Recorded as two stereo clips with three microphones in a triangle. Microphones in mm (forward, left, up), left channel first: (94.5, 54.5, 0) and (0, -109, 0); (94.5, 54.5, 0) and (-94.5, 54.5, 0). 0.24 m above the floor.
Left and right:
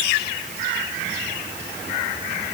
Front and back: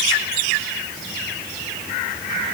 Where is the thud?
No thud in this recording.